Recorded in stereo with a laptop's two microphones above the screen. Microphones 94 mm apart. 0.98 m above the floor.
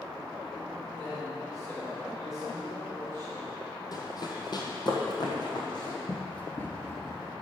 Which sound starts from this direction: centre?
Running footsteps, at 6.1 s.